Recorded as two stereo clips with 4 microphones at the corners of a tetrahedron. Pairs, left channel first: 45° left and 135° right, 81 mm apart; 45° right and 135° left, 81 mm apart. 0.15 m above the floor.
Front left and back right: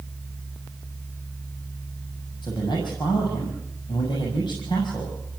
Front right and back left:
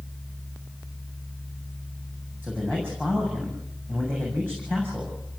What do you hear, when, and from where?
2.4 s a man speaking: 70° left, 6.5 m